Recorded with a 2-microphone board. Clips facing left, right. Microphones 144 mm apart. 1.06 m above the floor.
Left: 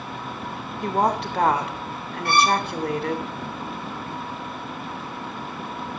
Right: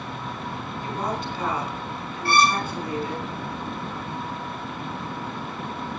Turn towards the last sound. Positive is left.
turn(degrees=20)  # may be behind; listen again after turning